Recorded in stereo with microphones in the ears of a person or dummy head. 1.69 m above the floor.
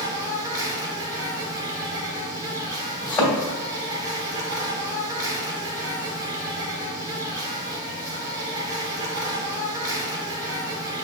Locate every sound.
0.0 s an insect: 20° right (ahead or behind), 0.8 m
3.0 s a thud: 25° left (ahead or behind), 1.9 m